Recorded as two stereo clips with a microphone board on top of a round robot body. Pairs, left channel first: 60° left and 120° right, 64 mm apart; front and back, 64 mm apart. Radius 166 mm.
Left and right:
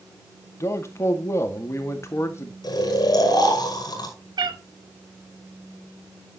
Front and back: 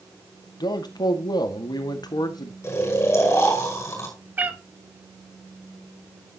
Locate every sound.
0.6 s a man speaking: 10° left, 1.9 m
2.6 s snoring: 50° left, 5.5 m
4.4 s a cat meowing: 115° right, 1.0 m